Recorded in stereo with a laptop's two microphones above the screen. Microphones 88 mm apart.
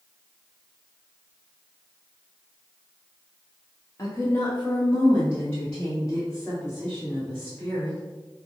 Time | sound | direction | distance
4.0 | a woman speaking | 35° left (ahead or behind) | 0.8 m